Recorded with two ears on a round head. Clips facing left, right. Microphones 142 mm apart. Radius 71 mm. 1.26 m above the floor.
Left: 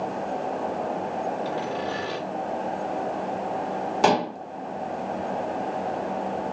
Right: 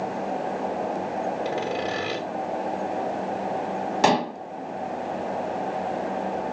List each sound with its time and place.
1.4 s sawing: 20° right (ahead or behind), 2 m
4.0 s dishes clattering: 5° right (ahead or behind), 0.8 m